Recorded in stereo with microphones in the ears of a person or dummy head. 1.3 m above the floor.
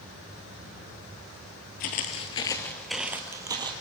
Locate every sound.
1.8 s footsteps: 50° left (ahead or behind), 1.9 m; by 3.7 s 25° right (ahead or behind), 2.5 m